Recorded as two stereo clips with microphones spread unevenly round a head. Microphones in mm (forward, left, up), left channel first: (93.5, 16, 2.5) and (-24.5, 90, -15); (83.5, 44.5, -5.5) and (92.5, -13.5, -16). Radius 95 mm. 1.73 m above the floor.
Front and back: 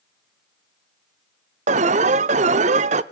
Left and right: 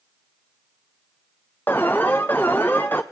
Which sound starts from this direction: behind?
An alarm, at 1.7 s.